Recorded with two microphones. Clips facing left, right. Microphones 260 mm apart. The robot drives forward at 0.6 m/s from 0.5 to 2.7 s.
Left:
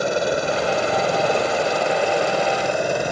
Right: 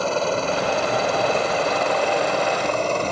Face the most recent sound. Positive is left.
turn(degrees=10)  # may be behind; listen again after turning